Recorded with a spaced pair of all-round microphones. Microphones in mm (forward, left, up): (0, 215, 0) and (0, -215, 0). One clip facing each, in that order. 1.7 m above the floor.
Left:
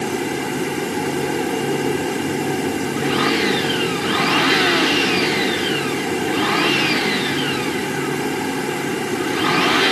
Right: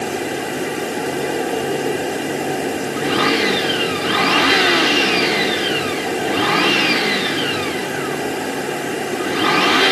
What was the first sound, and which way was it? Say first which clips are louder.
An insect: left 1 dB; 15° left (ahead or behind).